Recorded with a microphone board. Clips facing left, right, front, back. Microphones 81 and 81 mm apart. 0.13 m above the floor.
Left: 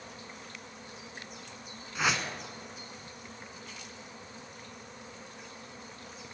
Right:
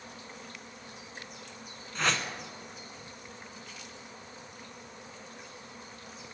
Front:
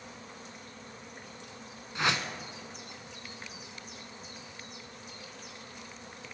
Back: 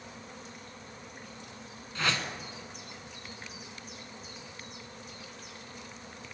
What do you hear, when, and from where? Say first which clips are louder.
1.9 s a whoosh: even, front 2 dB; 20° left, 1.0 m